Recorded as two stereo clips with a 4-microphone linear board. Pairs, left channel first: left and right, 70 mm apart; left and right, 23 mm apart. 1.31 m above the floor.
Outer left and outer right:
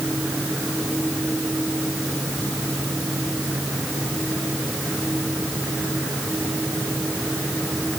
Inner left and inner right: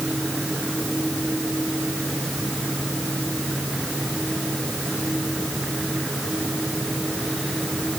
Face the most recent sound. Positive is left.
No sound to turn to.